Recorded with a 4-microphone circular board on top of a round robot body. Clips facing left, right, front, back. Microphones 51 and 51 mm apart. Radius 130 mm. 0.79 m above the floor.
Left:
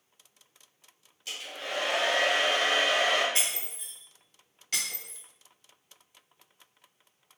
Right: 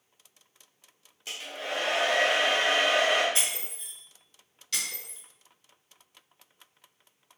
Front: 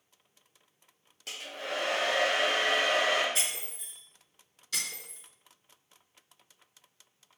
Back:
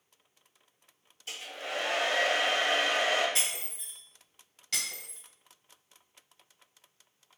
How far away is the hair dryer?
About 0.6 m.